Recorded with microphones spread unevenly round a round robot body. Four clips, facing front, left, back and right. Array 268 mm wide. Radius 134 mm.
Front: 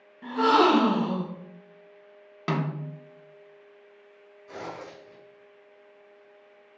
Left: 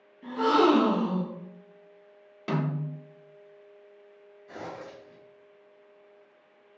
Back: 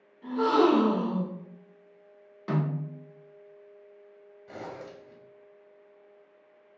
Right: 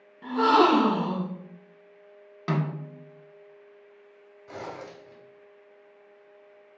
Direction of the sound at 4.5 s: 110° right.